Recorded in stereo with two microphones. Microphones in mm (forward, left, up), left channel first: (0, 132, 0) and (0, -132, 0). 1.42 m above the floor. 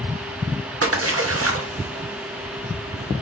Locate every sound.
0.8 s a splash: 60° right (ahead or behind), 0.8 m